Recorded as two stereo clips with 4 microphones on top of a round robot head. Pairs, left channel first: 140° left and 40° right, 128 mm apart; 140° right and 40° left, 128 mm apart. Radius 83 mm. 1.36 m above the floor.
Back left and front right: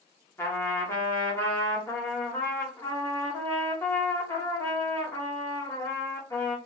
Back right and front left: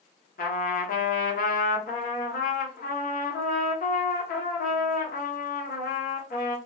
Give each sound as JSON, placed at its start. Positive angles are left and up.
{"t": 0.4, "sound": "a trumpet", "azimuth_deg": -150, "distance_m": 0.9}